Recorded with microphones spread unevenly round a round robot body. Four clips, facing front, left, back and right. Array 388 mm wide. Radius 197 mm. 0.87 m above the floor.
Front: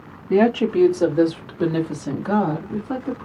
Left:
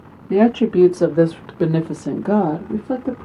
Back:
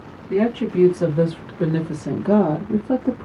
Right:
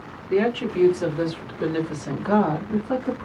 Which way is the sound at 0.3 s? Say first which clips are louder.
Left 7 dB, front 3 dB; 55° left.